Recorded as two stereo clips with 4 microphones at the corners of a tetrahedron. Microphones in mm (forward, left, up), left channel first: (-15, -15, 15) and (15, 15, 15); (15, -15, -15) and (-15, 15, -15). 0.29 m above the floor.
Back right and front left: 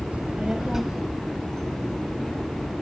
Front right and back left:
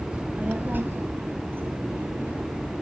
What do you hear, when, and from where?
0.1 s a child speaking: 75° left, 1.4 m; by 2.7 s 155° left, 3.5 m